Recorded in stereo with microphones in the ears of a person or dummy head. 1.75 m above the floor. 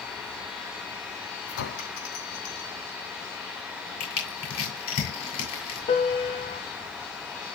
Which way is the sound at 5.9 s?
25° left (ahead or behind).